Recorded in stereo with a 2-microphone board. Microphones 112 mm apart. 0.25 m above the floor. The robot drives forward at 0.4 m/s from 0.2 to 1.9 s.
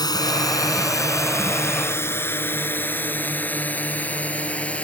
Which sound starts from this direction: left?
A drone, at 0.0 s.